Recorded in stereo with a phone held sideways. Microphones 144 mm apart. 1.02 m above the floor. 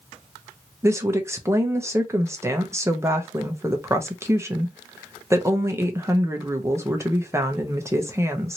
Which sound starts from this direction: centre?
A woman speaking, at 0.8 s.